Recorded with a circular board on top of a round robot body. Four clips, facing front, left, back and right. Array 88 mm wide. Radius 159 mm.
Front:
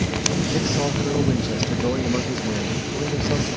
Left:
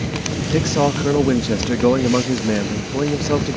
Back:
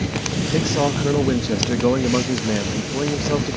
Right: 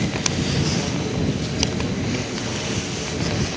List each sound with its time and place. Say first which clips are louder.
0.5 s a man speaking: left 6 dB, back 7 dB; 110° left